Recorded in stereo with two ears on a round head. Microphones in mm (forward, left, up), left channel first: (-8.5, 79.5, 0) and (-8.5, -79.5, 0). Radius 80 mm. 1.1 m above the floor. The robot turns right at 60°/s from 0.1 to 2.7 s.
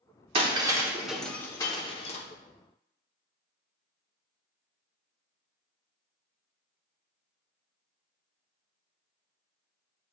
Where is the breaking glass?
30° right (ahead or behind), 0.8 m; by 2.2 s 40° left (ahead or behind), 0.8 m.